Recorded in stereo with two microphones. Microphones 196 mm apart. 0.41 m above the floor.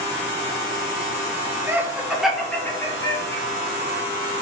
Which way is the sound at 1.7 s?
15° right (ahead or behind).